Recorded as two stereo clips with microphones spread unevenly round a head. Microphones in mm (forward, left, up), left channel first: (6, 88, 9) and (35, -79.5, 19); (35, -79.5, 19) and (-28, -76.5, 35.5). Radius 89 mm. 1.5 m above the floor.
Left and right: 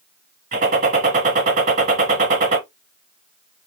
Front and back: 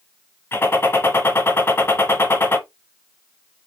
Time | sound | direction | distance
0.5 | a gunshot | 60° right | 1.8 m